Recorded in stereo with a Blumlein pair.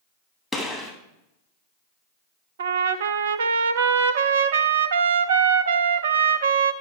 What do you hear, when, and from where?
0.5 s a gunshot: 10° left, 2.5 m
2.6 s a trumpet: 65° right, 0.7 m